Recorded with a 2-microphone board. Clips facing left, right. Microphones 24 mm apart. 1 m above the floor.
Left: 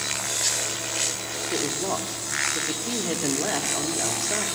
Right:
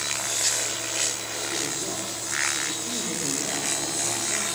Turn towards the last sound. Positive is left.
turn(degrees=65)  # may be behind; listen again after turning